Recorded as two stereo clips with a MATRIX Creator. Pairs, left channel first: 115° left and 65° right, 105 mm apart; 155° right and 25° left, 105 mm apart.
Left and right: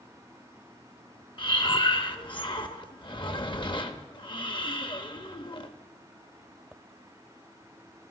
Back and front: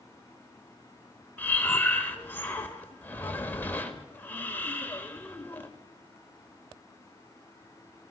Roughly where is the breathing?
Behind left.